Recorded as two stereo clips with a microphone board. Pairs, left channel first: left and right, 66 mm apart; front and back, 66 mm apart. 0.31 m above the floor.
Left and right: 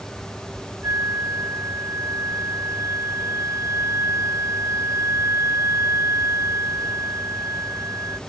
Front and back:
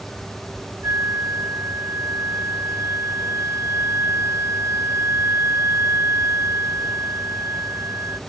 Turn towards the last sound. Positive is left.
turn(degrees=-135)